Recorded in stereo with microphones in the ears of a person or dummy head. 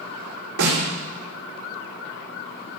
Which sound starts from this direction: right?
A snare drum, at 0.6 s.